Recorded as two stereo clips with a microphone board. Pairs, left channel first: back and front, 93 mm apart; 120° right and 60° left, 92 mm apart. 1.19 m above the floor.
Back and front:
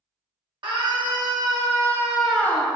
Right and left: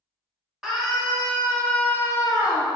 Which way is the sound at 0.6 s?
25° right.